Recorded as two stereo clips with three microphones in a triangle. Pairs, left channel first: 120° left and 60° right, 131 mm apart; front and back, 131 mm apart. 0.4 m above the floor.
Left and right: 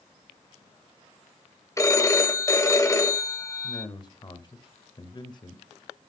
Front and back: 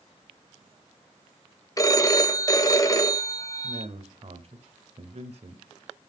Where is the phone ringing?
60° left, 1.0 m.